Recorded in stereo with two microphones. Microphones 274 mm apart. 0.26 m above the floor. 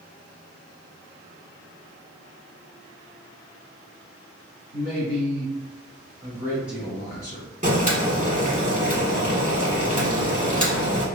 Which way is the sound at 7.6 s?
30° right (ahead or behind).